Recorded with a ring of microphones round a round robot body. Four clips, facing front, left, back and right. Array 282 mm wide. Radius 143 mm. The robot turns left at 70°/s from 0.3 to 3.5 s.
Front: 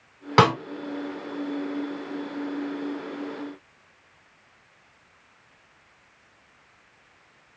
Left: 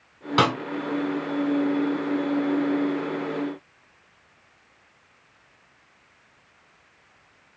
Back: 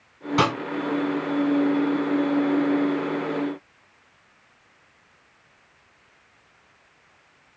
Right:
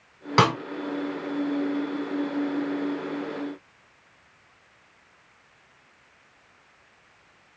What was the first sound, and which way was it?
A snare drum, 15° right.